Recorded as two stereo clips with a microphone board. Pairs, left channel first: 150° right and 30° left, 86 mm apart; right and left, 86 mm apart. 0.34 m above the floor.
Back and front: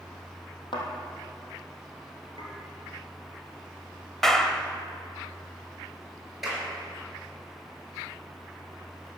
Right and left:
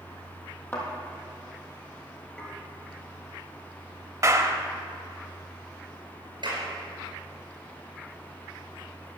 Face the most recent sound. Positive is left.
turn(degrees=120)